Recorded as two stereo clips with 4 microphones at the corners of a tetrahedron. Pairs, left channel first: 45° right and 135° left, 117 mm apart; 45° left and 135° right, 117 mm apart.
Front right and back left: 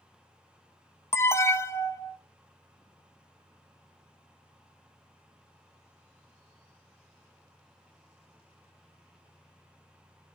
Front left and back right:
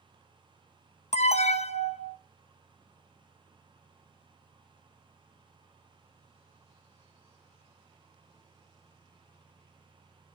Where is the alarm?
25° left, 0.5 m.